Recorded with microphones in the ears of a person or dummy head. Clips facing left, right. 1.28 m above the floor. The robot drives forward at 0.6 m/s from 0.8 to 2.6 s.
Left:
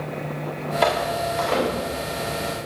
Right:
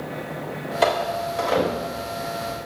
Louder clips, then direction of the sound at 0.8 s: Right 1 dB; centre (ahead or behind).